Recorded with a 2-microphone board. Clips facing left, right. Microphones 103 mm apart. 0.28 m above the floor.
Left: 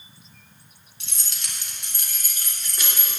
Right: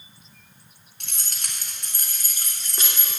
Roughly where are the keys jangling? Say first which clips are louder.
Right 1 dB; right.